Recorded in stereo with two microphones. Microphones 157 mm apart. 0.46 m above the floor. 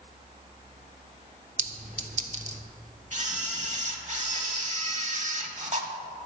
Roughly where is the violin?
No violin in this recording.